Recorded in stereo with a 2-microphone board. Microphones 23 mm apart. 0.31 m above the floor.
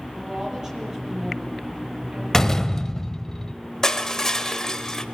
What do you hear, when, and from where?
0.1 s a woman speaking: 30° right (ahead or behind), 7.5 m
2.3 s a door slam: 20° left (ahead or behind), 0.9 m
3.8 s crushing: 25° left (ahead or behind), 1.5 m